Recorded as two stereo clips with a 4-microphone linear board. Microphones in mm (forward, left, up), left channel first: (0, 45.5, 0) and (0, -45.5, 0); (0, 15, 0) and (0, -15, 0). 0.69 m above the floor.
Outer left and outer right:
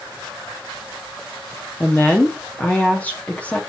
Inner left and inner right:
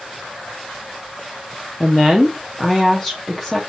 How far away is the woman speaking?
About 0.8 m.